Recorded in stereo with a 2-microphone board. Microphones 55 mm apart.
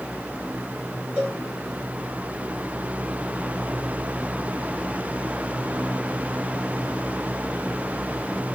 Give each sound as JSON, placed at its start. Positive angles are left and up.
{"t": 1.2, "sound": "a cowbell", "side_deg": -20, "distance_m": 6.5}